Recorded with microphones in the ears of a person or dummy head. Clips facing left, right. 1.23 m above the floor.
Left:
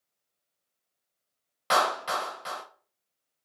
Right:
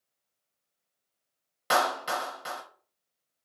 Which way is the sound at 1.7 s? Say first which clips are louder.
Even; 10° right (ahead or behind).